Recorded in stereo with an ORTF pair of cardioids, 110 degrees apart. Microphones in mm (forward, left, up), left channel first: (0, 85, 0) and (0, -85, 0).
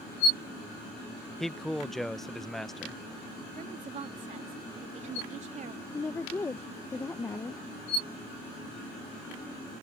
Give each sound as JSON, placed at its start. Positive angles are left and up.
{"t": 1.4, "sound": "a man speaking", "azimuth_deg": 0}
{"t": 3.5, "sound": "a woman speaking", "azimuth_deg": -45}
{"t": 5.9, "sound": "a woman speaking", "azimuth_deg": 15}